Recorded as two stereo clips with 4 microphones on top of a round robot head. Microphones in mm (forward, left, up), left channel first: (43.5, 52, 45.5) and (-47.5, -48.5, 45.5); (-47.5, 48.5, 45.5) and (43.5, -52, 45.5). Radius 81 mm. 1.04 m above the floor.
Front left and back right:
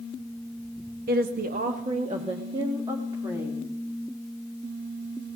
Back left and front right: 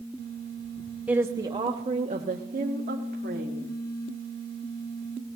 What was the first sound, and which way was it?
A woman speaking, 130° right.